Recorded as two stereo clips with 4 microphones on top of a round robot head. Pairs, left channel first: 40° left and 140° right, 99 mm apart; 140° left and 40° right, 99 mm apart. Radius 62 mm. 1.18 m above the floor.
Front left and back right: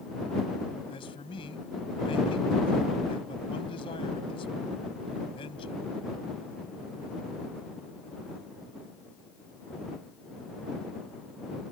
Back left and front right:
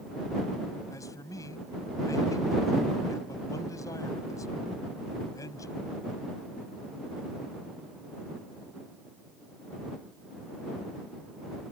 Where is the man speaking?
80° left.